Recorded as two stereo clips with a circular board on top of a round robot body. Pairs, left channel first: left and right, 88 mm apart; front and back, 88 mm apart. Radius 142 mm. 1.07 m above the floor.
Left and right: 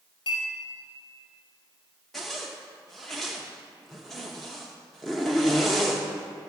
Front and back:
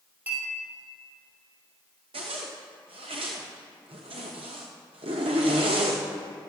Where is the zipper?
Straight behind, 0.8 m.